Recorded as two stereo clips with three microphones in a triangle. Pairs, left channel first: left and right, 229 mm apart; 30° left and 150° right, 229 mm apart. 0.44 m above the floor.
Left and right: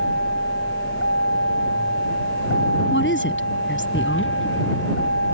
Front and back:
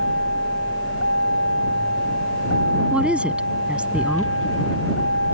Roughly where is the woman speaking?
Behind left.